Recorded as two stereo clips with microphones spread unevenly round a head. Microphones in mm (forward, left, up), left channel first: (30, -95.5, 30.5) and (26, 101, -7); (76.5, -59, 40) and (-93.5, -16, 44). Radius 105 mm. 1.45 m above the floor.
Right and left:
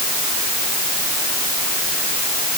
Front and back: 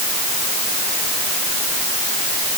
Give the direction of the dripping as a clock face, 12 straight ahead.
I don't hear dripping.